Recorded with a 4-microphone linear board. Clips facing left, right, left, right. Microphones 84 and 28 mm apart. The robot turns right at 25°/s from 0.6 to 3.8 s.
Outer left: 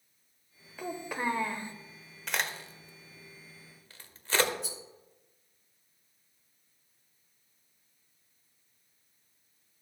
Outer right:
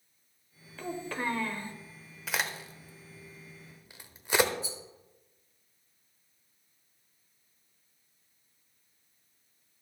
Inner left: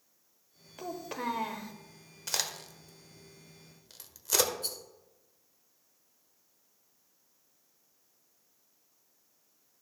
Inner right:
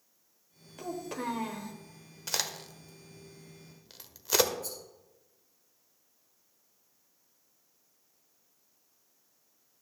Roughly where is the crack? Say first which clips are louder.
Even, even; centre.